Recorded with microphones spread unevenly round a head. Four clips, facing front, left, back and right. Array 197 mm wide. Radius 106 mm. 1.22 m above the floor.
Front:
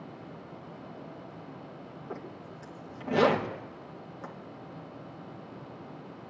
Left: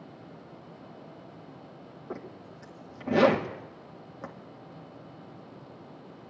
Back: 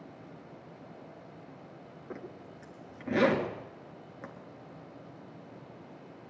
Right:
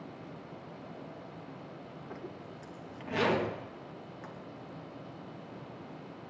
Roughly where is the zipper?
Left.